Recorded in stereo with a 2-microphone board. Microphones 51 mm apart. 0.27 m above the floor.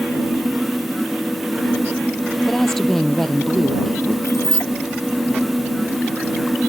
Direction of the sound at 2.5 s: 5° left (ahead or behind).